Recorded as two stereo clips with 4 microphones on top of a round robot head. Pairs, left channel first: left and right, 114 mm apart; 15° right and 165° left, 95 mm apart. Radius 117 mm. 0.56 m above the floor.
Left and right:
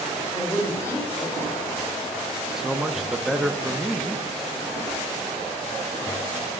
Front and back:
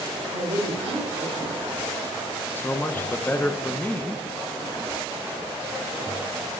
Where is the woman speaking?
155° left, 2.5 m.